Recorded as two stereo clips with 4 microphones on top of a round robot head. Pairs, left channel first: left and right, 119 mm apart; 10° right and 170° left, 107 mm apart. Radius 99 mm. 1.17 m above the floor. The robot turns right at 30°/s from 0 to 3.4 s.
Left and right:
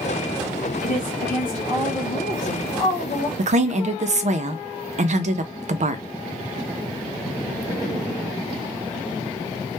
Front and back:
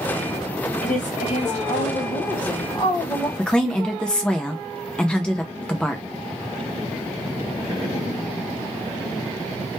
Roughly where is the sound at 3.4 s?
Right.